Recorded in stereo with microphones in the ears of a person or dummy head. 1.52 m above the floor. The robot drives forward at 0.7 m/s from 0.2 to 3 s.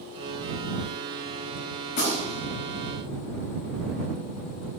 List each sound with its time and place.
1.9 s a gunshot: 55° left (ahead or behind), 4 m; by 2.5 s 50° left (ahead or behind), 4.5 m